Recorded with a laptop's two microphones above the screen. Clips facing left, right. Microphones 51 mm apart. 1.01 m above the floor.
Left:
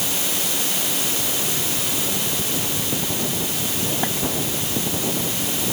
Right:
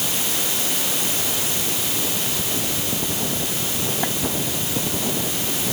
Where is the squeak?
No squeak in this recording.